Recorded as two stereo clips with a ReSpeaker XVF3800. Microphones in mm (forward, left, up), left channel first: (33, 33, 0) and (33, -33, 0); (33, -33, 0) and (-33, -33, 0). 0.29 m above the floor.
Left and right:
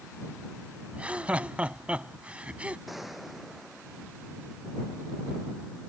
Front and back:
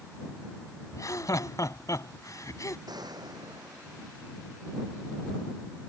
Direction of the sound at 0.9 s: 20° right.